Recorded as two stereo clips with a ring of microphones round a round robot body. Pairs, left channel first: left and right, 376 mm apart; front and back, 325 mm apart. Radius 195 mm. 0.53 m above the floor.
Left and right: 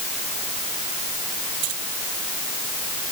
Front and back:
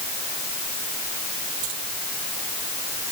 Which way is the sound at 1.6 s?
125° right.